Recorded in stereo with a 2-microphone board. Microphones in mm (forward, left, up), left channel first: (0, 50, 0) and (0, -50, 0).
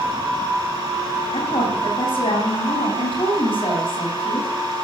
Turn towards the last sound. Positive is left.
turn(degrees=65)  # may be behind; listen again after turning